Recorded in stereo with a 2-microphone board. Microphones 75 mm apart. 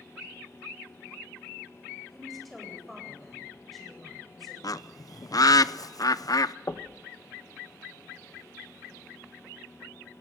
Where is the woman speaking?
Centre (ahead or behind), 8.5 m.